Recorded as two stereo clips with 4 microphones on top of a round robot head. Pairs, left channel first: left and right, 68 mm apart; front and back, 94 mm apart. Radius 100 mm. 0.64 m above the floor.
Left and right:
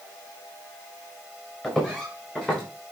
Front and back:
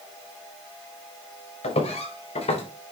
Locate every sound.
1.6 s footsteps: 5° left, 5 m; by 2.6 s 10° left, 5.5 m